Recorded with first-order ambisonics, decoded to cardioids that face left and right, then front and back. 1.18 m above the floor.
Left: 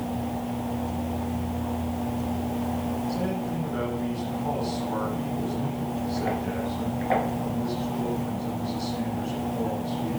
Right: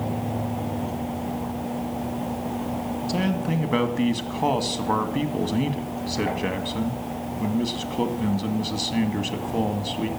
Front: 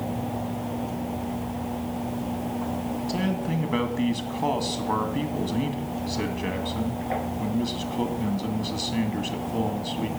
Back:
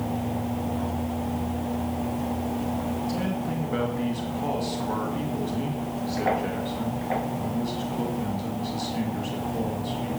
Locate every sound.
3.1 s a man speaking: 70° right, 1.9 m